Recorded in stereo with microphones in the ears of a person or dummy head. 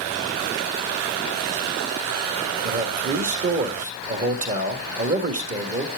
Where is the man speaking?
45° right (ahead or behind), 1.7 m.